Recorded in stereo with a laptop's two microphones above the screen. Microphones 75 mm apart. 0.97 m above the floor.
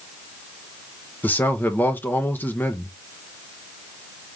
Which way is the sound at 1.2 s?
25° left (ahead or behind).